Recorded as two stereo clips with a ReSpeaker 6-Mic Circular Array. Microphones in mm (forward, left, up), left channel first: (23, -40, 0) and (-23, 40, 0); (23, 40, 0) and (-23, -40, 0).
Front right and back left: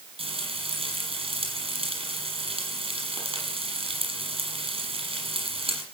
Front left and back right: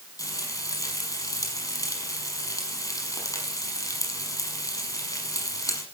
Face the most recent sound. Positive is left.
turn(degrees=115)